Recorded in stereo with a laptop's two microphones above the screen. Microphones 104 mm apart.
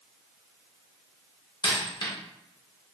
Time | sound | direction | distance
1.6 | a dropped coin | 45° left (ahead or behind) | 0.9 m